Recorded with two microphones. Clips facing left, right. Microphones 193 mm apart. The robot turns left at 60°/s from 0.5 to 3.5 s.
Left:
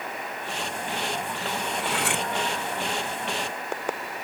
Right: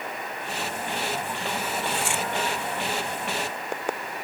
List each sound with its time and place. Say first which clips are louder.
1.8 s cutlery clinking: left 2 dB; 80° left; by 2.3 s 55° left (ahead or behind)